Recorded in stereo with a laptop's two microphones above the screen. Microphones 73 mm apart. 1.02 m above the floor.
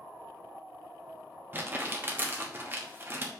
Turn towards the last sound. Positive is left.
turn(degrees=-30)  # may be behind; listen again after turning